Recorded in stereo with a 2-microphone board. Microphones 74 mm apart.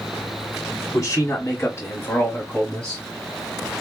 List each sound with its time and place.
0.9 s a man speaking: 45° left (ahead or behind), 1.8 m; by 3.0 s 5° left (ahead or behind), 1.3 m